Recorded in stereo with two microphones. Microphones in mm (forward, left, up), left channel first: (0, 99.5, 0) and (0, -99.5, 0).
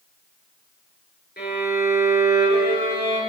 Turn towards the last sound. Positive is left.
turn(degrees=55)  # may be behind; listen again after turning